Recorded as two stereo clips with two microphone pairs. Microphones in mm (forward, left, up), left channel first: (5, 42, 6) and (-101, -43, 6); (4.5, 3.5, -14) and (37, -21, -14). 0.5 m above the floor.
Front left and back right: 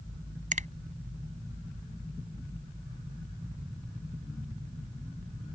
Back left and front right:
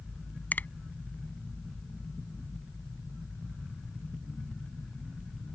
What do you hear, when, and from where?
0.5 s a finger snap: 170° right